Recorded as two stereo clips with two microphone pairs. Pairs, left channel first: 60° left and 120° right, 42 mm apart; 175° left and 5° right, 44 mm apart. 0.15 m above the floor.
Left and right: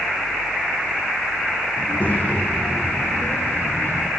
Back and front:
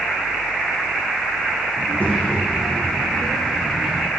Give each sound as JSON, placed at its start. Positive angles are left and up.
{"t": 1.8, "sound": "a child speaking", "azimuth_deg": 115, "distance_m": 6.0}